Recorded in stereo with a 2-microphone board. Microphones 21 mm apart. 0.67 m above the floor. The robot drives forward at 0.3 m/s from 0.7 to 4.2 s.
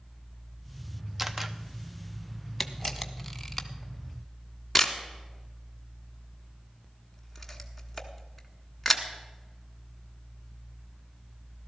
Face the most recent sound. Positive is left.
turn(degrees=5)  # may be behind; listen again after turning